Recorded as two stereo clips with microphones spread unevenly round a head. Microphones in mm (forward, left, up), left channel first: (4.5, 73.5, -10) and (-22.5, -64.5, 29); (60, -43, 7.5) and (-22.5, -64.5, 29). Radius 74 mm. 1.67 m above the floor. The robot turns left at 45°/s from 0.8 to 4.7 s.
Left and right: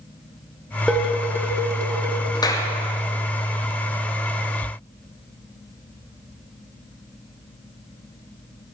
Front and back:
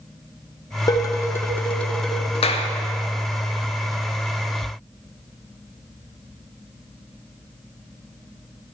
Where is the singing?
I don't hear singing.